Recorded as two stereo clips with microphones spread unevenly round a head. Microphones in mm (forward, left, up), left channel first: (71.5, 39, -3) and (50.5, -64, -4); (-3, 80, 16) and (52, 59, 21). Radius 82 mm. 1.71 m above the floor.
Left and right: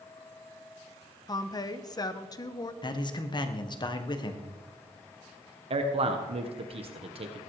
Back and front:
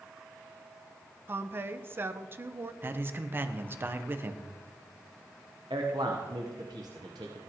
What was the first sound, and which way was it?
A woman speaking, 25° left.